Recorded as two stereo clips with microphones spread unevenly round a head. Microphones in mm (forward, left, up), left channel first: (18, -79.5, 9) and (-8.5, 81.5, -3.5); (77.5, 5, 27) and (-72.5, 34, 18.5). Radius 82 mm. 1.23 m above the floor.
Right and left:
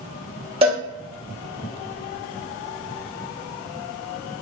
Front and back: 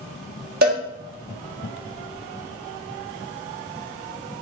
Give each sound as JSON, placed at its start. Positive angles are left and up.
{"t": 0.6, "sound": "a cowbell", "azimuth_deg": 155, "distance_m": 1.8}